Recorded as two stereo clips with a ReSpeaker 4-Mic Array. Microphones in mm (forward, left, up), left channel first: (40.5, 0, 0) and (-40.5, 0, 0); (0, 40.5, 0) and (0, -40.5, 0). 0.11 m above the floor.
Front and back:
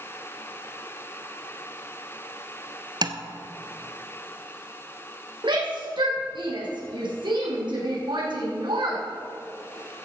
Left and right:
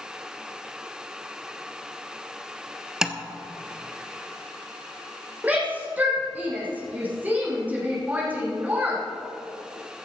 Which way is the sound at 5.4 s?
160° right.